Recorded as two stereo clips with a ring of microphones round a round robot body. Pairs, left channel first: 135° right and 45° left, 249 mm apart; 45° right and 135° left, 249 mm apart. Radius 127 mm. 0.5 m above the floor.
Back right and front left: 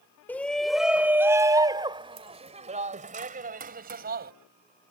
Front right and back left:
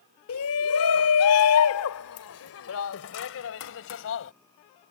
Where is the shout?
55° right; by 4.3 s 5° right.